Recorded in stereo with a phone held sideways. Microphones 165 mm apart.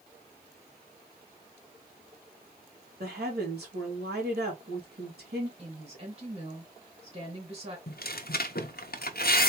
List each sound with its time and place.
3.0 s a woman speaking: 80° right, 2.5 m
5.6 s a woman speaking: 40° right (ahead or behind), 3 m
7.9 s tearing paper: 65° left (ahead or behind), 0.7 m